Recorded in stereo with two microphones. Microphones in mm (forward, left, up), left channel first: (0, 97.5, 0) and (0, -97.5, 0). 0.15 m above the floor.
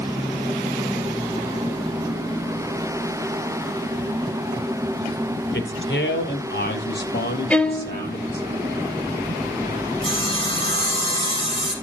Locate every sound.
5.5 s a man speaking: 70° left (ahead or behind), 3.5 m; by 8.5 s 50° left (ahead or behind), 5 m
7.5 s a violin: 5° left (ahead or behind), 0.9 m
10.0 s sawing: 30° left (ahead or behind), 4 m